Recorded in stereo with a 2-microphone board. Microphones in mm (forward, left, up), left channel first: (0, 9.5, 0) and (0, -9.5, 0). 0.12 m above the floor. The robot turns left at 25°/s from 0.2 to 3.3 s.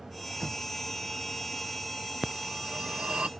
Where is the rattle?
I don't hear a rattle.